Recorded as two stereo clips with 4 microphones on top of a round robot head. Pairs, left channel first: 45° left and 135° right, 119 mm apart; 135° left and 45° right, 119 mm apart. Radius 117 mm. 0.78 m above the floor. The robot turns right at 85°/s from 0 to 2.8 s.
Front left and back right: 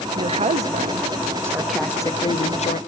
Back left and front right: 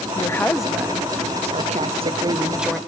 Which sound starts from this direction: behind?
A woman speaking, at 0.1 s.